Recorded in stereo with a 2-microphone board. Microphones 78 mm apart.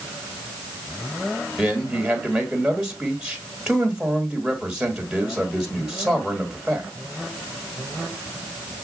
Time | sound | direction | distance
1.6 | a man speaking | 10° right (ahead or behind) | 1.3 m